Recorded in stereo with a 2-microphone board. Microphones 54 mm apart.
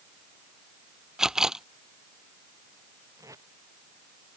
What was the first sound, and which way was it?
A camera shutter, 10° right (ahead or behind).